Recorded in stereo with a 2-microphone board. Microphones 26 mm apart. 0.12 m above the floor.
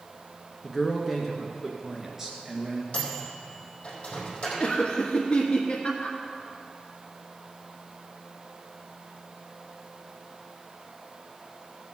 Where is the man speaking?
Centre (ahead or behind), 1.4 m; by 2.8 s 20° right (ahead or behind), 2 m.